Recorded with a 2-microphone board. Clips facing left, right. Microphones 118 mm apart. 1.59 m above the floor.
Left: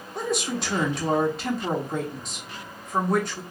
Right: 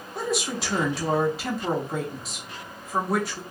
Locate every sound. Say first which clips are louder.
0.1 s a woman speaking: left 1 dB; 5° right (ahead or behind), 1.1 m